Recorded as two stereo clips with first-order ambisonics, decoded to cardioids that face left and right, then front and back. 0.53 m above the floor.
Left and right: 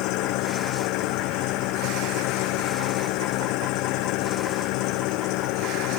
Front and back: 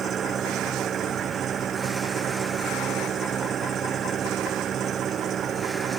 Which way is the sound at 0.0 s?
120° left.